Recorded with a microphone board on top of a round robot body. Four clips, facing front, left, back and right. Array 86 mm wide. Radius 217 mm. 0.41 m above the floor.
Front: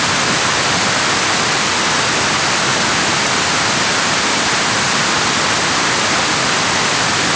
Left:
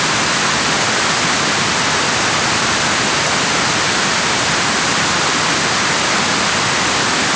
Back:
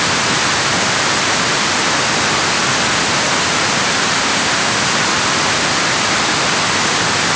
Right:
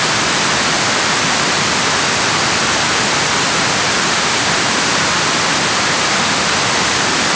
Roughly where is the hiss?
I don't hear a hiss.